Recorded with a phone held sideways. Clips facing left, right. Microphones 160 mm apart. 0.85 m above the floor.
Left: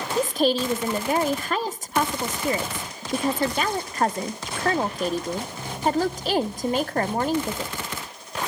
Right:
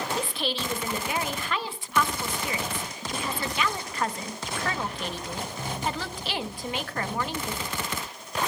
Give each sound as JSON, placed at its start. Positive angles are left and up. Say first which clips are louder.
{"t": 0.2, "sound": "a woman speaking", "louder": "left 9 dB", "side_deg": 45, "distance_m": 0.8}